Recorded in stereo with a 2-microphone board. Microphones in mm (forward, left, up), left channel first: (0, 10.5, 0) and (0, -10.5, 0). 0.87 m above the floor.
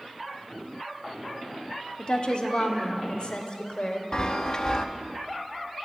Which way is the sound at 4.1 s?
40° left (ahead or behind).